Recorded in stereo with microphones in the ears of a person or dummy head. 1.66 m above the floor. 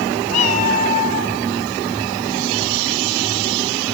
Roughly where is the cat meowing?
Left.